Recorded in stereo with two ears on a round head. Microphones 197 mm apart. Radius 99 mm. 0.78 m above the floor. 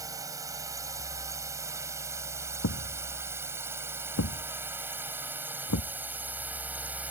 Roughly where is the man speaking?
I don't hear a man speaking.